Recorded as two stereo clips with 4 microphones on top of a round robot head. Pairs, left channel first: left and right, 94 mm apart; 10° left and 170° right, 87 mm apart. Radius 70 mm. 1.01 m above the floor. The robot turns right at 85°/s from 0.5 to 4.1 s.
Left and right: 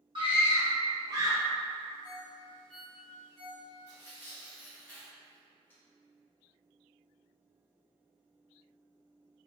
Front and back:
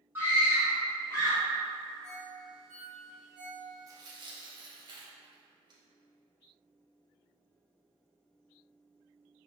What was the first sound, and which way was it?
A scream, 105° right.